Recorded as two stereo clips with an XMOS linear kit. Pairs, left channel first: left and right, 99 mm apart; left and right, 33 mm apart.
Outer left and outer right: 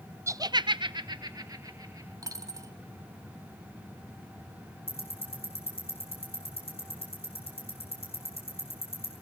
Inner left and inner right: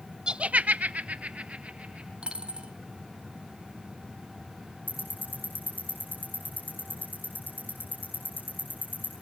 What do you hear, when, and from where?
0.3 s laughter: 30° right (ahead or behind), 0.8 m; by 2.1 s 35° right (ahead or behind), 3 m
2.2 s a dropped coin: 35° right (ahead or behind), 2 m
4.9 s ticking: 75° left (ahead or behind), 9.5 m